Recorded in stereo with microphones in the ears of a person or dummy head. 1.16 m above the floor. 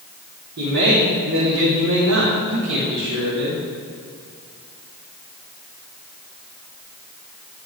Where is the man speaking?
55° right (ahead or behind), 3.5 m; by 3.6 s 65° right (ahead or behind), 4.5 m.